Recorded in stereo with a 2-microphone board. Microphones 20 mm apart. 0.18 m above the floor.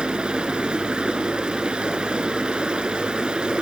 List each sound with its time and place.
0.0 s running water: 65° right (ahead or behind), 0.7 m